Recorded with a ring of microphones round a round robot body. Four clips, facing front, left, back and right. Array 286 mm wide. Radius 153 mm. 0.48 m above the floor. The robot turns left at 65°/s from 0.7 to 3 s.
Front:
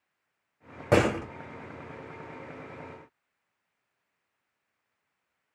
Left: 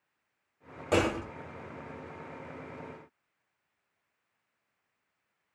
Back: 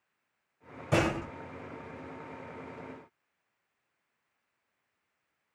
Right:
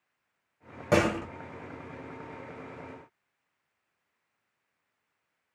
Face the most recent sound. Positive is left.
turn(degrees=-150)